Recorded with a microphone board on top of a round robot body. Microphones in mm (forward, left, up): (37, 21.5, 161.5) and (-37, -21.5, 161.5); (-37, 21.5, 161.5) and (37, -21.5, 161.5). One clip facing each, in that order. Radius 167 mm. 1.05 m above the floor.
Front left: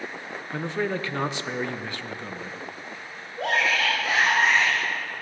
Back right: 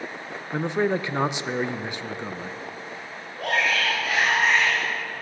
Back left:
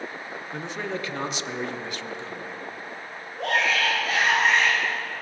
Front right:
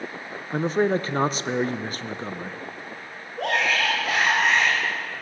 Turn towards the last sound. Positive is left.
turn(degrees=-35)